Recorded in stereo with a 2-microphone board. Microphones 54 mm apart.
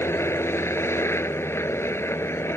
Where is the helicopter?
50° left (ahead or behind).